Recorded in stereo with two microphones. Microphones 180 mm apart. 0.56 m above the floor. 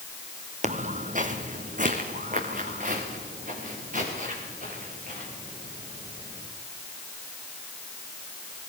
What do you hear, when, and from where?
0.6 s footsteps: 45° right (ahead or behind), 1.1 m; by 6.5 s 50° right (ahead or behind), 10 m